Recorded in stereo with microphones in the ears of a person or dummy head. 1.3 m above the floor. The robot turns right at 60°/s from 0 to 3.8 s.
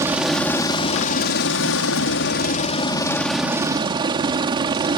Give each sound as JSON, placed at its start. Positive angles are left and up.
{"t": 0.0, "sound": "a helicopter", "azimuth_deg": -20}